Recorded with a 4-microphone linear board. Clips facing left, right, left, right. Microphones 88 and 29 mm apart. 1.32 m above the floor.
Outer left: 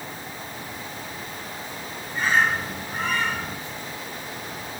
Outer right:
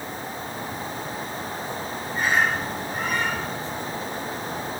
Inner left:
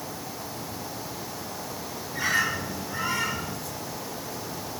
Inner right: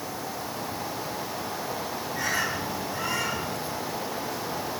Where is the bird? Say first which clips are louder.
Outer left 1 dB, inner left 3 dB; 35° left (ahead or behind), 4.5 m.